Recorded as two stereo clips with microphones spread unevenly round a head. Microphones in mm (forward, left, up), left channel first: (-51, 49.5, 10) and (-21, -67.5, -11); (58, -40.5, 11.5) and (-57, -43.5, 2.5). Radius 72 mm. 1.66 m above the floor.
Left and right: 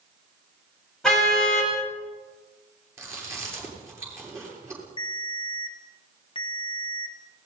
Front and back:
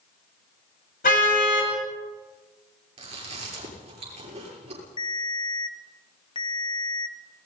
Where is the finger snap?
No finger snap in this recording.